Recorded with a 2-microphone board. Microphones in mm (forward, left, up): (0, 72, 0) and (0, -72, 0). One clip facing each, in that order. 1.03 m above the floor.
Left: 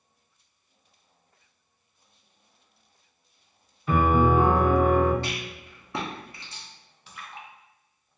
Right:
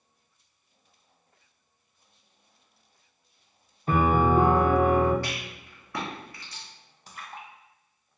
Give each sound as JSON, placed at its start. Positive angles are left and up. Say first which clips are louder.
{"t": 3.9, "sound": "a piano", "louder": "left 1 dB", "side_deg": -40, "distance_m": 0.7}
{"t": 5.2, "sound": "a rattle", "louder": "left 2 dB", "side_deg": 20, "distance_m": 0.8}
{"t": 7.1, "sound": "a splash", "louder": "right 1 dB", "side_deg": -40, "distance_m": 0.5}